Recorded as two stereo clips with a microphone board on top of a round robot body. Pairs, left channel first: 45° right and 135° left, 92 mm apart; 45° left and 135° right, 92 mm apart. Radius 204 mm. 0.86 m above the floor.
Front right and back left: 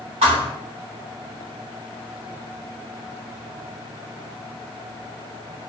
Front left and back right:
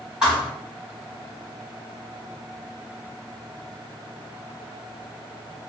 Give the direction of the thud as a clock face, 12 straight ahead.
7 o'clock.